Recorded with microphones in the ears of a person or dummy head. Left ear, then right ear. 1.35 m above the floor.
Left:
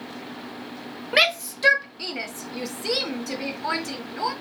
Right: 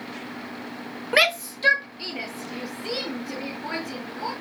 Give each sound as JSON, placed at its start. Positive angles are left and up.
{"t": 1.1, "sound": "a shout", "side_deg": -5, "distance_m": 0.5}